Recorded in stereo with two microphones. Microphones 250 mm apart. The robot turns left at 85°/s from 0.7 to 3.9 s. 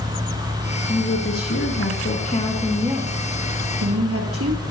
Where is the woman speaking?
155° left, 3.5 m; by 4.6 s 100° right, 3.5 m.